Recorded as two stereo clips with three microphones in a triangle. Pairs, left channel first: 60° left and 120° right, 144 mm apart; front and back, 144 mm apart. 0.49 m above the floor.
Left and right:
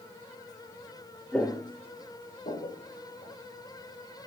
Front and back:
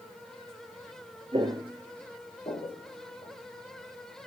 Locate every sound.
1.3 s footsteps: 140° left, 0.7 m; by 3.3 s 35° left, 1.7 m